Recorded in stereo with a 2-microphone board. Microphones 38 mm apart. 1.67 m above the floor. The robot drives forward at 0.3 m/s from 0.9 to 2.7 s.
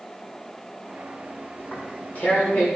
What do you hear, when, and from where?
1.6 s tearing paper: 50° left (ahead or behind), 5 m; by 2.7 s 55° left (ahead or behind), 5 m